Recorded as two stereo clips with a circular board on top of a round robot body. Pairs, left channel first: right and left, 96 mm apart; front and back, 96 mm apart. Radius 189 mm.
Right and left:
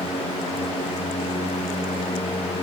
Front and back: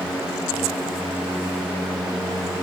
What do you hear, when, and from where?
Only background noise.